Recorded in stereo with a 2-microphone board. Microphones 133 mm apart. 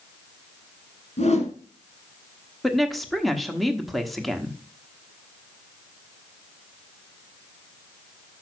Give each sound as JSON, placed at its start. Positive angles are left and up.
{"t": 1.2, "sound": "a whoosh", "side_deg": 55, "distance_m": 1.5}
{"t": 2.6, "sound": "a woman speaking", "side_deg": 0, "distance_m": 1.1}